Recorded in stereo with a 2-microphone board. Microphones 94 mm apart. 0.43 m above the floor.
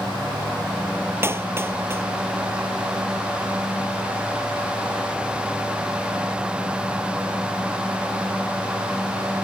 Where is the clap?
25° right (ahead or behind).